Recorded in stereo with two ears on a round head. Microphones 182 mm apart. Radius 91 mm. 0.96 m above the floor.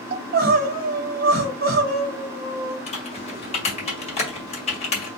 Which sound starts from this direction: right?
Crying, at 0.1 s.